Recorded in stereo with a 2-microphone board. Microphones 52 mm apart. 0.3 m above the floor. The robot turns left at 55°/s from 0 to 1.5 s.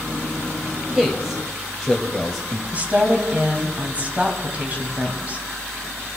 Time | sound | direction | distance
0.9 | a man speaking | 15° right (ahead or behind) | 1.1 m
2.7 | a woman speaking | 30° right (ahead or behind) | 2 m